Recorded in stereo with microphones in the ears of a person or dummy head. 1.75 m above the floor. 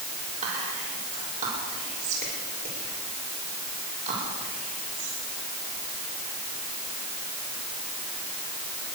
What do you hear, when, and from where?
0.4 s whispering: 40° right (ahead or behind), 6 m